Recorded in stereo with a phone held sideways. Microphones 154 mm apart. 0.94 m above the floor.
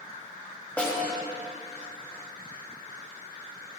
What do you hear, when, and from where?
0.8 s a snare drum: 10° left (ahead or behind), 2.5 m